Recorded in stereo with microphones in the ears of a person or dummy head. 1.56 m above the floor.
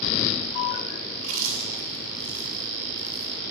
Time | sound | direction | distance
1.1 | chewing | 50° right (ahead or behind) | 7 m